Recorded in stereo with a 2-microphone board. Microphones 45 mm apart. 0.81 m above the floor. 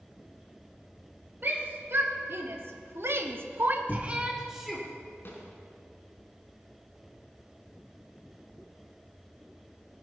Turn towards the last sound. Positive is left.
turn(degrees=55)  # may be behind; listen again after turning